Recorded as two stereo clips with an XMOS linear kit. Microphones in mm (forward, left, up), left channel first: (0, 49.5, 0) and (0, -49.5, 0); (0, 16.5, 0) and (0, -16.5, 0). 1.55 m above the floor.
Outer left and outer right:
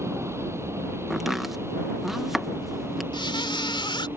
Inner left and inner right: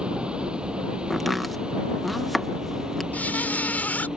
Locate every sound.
0.0 s a vehicle: 25° right (ahead or behind)
1.1 s chopping: centre (ahead or behind)
3.1 s a squeak: 55° left (ahead or behind)